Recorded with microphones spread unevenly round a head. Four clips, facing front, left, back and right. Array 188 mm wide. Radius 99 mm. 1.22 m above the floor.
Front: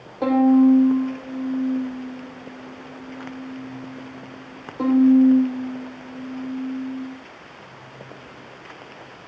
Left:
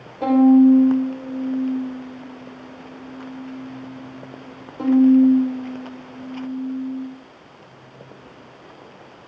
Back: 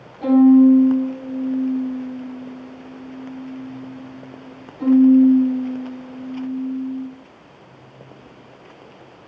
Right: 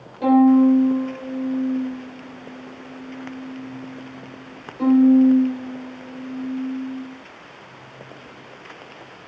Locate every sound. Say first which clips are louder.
0.2 s a violin: left 1 dB, back 4 dB; 20° left, 6 m